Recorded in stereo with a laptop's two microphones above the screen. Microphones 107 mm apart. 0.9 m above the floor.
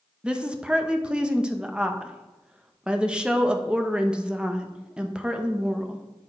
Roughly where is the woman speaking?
Centre.